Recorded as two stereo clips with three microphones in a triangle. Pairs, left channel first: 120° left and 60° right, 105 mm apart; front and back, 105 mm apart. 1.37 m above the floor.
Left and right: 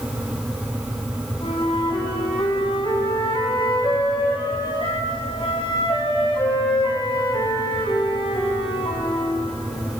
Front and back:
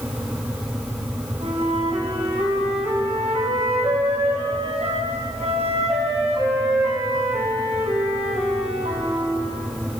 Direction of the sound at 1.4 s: 160° left.